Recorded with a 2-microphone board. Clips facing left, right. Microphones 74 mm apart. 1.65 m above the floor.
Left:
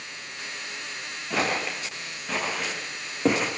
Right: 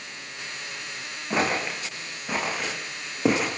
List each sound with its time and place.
1.3 s footsteps: 20° right (ahead or behind), 6 m; by 3.5 s 5° right (ahead or behind), 5 m